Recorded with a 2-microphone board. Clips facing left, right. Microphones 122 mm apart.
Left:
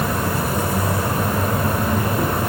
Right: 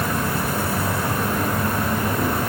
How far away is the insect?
About 0.9 m.